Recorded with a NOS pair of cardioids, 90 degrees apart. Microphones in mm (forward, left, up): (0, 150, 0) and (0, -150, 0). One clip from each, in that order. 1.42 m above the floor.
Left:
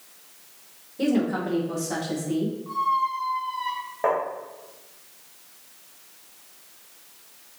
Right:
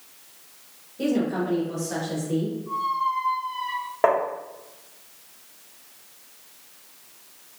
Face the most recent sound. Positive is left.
turn(degrees=-35)